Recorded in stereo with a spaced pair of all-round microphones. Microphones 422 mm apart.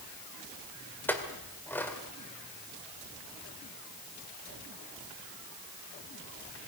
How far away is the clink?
About 2 m.